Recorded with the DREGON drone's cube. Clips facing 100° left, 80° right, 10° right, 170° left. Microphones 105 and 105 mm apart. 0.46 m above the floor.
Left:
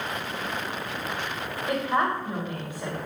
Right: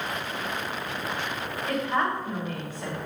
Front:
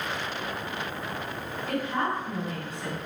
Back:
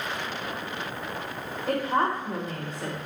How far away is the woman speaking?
About 2 m.